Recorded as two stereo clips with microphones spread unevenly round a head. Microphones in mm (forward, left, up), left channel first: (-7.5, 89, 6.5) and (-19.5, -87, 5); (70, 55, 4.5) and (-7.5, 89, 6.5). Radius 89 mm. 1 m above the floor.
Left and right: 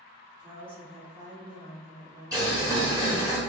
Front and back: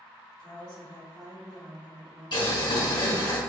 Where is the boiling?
25° right, 0.8 m.